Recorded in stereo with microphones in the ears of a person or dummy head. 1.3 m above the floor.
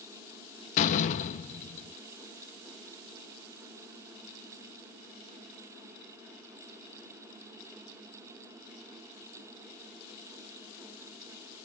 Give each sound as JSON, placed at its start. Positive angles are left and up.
{"t": 0.8, "sound": "a door slam", "side_deg": 45, "distance_m": 0.6}